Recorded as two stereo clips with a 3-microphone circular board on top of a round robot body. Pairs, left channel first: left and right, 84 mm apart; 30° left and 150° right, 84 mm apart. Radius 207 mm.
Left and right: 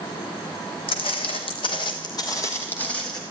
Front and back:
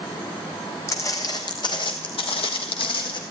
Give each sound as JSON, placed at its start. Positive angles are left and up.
{"t": 0.9, "sound": "footsteps", "azimuth_deg": 85, "distance_m": 1.4}